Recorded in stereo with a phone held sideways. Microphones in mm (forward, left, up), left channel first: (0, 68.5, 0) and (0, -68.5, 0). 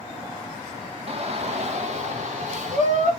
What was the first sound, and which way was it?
A shout, 50° right (ahead or behind).